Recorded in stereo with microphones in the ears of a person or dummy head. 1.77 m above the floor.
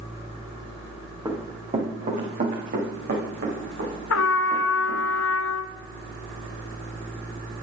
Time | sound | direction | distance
1.2 | running footsteps | 20° right (ahead or behind) | 3.5 m
4.1 | a trumpet | 75° left (ahead or behind) | 0.7 m